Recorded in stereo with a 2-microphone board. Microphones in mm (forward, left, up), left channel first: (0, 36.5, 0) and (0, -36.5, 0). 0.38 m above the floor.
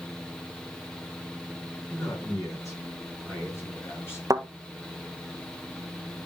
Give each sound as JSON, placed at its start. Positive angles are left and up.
{"t": 1.9, "sound": "a man speaking", "side_deg": 45, "distance_m": 5.5}
{"t": 4.3, "sound": "a thud", "side_deg": -50, "distance_m": 0.8}